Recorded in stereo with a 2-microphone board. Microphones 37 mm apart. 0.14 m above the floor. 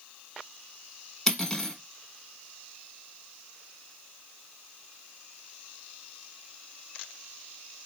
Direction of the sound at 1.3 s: 15° left (ahead or behind).